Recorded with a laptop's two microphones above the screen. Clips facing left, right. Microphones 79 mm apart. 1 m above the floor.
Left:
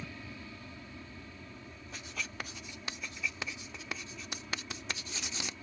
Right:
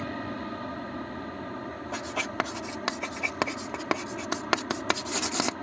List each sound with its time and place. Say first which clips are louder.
0.0 s an aircraft: right 12 dB; 55° right (ahead or behind)
1.9 s writing: right 11 dB; 80° right